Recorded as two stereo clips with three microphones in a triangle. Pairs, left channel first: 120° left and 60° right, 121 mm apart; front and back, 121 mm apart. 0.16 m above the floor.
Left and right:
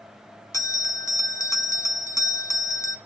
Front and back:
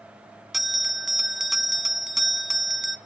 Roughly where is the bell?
Left.